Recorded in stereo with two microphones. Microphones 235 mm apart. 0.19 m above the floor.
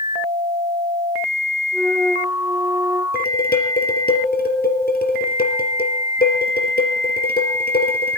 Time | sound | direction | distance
1.7 | a flute | 5° left (ahead or behind) | 5.5 m
3.1 | dishes clattering | 40° left (ahead or behind) | 3 m